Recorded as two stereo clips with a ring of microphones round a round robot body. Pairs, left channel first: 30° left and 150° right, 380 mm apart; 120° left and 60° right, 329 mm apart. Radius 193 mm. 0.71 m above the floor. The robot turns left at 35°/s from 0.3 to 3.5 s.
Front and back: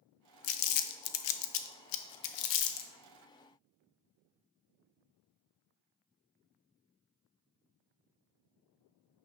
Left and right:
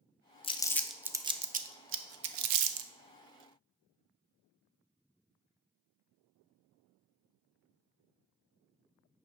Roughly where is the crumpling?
Ahead left.